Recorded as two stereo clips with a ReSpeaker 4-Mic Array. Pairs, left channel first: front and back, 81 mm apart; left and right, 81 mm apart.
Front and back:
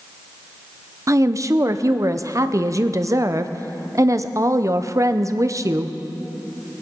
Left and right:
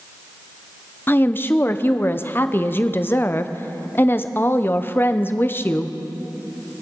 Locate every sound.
1.1 s a woman speaking: 145° left, 0.7 m